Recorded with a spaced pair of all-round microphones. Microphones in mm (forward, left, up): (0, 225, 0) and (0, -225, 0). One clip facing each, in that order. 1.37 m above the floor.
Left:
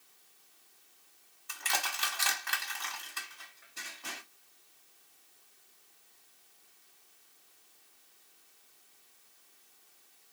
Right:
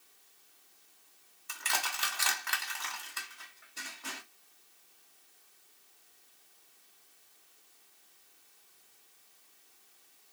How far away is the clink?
No clink in this recording.